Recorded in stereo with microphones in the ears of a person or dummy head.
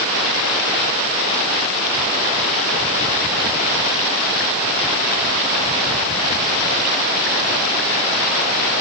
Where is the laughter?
I don't hear laughter.